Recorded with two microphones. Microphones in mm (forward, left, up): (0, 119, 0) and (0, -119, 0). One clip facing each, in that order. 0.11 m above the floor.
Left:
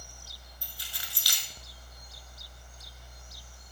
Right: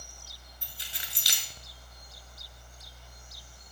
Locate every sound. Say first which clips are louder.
0.6 s keys jangling: right 1 dB; 20° right (ahead or behind), 1.1 m